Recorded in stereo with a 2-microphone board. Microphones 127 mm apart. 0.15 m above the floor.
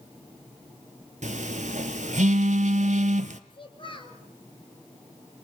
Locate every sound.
1.2 s a phone buzzing: 75° right (ahead or behind), 0.7 m
3.5 s a child speaking: 40° left (ahead or behind), 2 m